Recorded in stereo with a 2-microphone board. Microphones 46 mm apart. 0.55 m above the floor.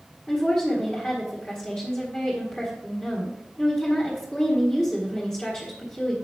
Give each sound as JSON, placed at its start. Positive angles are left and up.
{"t": 0.3, "sound": "a woman speaking", "side_deg": 20, "distance_m": 1.6}